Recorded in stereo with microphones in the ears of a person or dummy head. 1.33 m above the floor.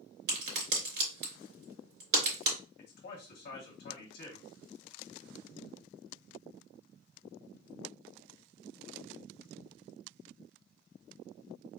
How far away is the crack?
About 2.5 m.